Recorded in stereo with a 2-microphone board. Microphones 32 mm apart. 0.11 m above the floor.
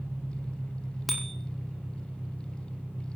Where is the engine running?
60° right (ahead or behind), 6.5 m.